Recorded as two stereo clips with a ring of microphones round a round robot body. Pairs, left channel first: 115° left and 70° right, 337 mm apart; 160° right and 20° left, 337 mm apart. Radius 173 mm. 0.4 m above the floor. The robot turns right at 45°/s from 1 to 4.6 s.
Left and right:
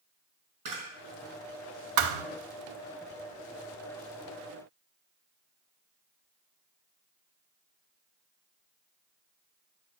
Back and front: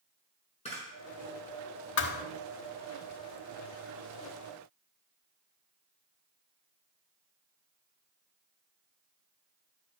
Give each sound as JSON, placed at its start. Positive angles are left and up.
{"t": 0.7, "sound": "a camera shutter", "azimuth_deg": -85, "distance_m": 5.5}
{"t": 2.0, "sound": "a thud", "azimuth_deg": -100, "distance_m": 0.7}